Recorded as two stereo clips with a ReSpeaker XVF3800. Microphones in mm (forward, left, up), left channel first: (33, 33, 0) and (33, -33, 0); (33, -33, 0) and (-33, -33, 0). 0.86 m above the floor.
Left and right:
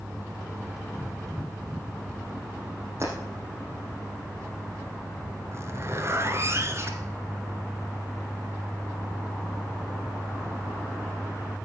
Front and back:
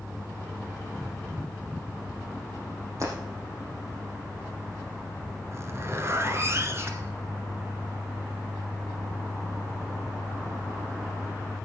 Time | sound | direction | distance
3.0 | breaking glass | 140° right | 5 m
5.5 | a zipper | 135° right | 1.7 m